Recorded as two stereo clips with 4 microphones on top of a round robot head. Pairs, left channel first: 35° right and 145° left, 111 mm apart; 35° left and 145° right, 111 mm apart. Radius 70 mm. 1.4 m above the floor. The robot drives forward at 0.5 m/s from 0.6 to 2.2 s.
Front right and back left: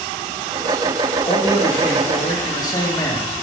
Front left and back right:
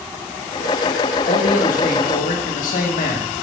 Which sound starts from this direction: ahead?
A man speaking, at 1.2 s.